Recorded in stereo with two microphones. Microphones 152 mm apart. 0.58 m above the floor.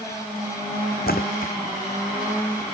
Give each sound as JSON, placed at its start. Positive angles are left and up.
{"t": 1.1, "sound": "a splash", "side_deg": 80}